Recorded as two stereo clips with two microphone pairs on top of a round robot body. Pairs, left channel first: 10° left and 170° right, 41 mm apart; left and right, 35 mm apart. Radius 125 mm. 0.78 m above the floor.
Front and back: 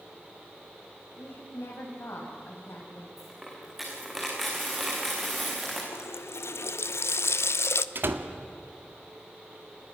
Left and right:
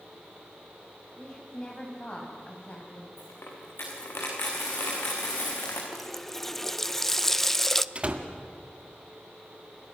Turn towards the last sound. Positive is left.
turn(degrees=-150)